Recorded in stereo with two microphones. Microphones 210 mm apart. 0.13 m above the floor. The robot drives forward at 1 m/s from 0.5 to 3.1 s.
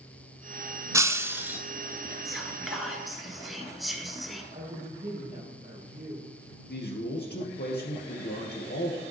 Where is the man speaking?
55° left (ahead or behind), 2.5 m.